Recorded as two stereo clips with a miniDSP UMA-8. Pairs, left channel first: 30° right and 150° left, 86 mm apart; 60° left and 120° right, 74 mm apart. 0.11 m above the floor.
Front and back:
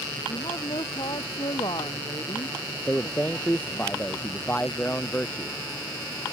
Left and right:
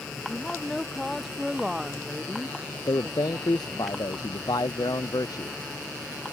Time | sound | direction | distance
0.3 | a woman speaking | 20° right | ?
2.9 | a man speaking | 40° left | ?